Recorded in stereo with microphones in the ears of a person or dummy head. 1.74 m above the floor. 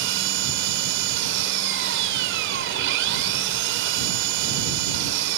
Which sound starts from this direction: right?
An engine running, at 0.0 s.